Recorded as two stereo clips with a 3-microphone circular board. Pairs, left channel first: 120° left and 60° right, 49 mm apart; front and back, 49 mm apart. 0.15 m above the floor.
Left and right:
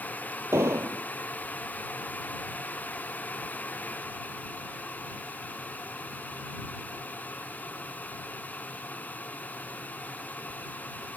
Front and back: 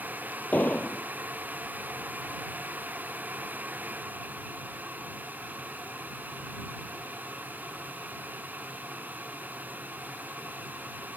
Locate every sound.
0.5 s an explosion: 55° right